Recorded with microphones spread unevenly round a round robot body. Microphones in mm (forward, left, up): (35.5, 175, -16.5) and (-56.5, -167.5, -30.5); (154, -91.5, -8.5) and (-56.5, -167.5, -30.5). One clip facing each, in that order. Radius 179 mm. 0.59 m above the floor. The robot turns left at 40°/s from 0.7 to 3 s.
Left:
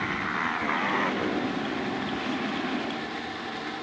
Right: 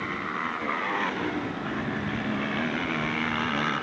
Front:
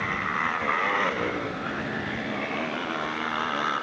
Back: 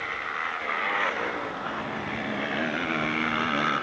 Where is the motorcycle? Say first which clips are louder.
Left 1 dB, front 6 dB; 5° right; by 3.8 s 100° right.